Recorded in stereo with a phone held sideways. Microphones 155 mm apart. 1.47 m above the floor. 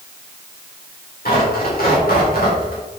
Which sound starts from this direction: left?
Tearing paper, at 1.2 s.